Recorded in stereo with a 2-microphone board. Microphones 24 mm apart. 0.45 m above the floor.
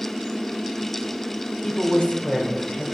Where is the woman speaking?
45° left (ahead or behind), 1.7 m.